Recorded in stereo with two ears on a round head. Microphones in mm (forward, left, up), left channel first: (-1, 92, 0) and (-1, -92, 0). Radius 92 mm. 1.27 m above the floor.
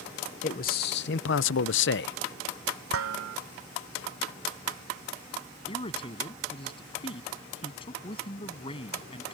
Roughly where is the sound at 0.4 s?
Left.